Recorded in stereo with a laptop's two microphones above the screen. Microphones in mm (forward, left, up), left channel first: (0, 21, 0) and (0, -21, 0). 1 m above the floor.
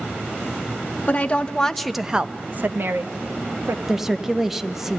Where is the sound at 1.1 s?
35° left (ahead or behind), 1.1 m; by 3.8 s 75° right (ahead or behind), 1.5 m.